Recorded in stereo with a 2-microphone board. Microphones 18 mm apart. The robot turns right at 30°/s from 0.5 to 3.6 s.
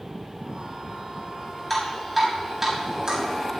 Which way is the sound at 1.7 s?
5° left (ahead or behind).